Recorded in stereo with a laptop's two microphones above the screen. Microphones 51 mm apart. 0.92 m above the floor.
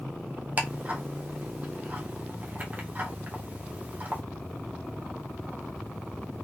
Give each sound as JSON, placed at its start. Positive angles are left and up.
{"t": 0.6, "sound": "ticking", "side_deg": -30, "distance_m": 0.8}